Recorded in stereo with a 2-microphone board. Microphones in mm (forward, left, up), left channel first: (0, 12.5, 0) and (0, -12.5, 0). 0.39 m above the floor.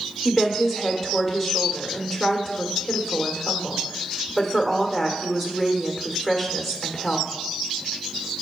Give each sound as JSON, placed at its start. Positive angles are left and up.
{"t": 0.2, "sound": "a woman speaking", "side_deg": -5, "distance_m": 1.2}